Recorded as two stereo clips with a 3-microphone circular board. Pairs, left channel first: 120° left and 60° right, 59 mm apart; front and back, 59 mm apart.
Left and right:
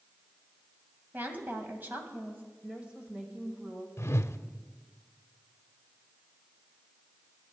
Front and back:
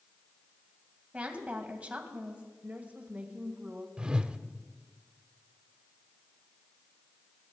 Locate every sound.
1.1 s a woman speaking: 110° right, 2.5 m
2.6 s a woman speaking: 120° right, 1.6 m
4.0 s a whoosh: 110° left, 0.6 m